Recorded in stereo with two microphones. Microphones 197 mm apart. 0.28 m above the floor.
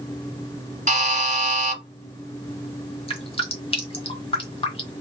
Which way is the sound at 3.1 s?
30° left (ahead or behind).